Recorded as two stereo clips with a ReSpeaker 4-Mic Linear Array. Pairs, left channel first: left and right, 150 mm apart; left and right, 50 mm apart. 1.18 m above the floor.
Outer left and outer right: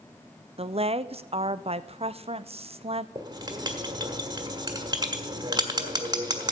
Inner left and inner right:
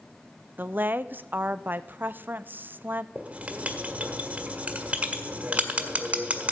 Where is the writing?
30° right (ahead or behind), 1.5 m.